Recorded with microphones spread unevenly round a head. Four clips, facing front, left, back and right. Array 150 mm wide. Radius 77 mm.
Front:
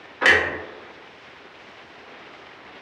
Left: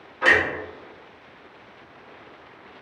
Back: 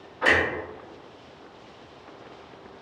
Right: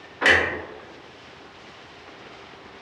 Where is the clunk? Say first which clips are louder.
Even, front 3 dB; 20° right, 1.0 m.